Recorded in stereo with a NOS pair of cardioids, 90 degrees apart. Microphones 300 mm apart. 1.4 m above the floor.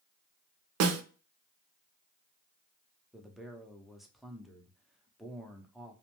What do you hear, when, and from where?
0.8 s a snare drum: 55° right, 0.6 m
3.1 s a man speaking: straight ahead, 0.7 m